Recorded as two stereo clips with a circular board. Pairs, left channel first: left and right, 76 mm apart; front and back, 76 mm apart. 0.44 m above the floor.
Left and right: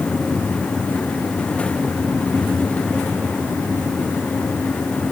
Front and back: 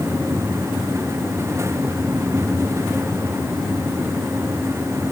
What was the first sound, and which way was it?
Only background noise.